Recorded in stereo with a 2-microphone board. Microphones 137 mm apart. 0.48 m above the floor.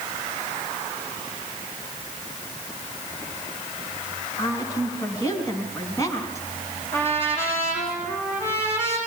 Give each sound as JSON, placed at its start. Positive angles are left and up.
{"t": 4.4, "sound": "a woman speaking", "side_deg": 25, "distance_m": 5.0}
{"t": 6.9, "sound": "a trumpet", "side_deg": 20, "distance_m": 7.0}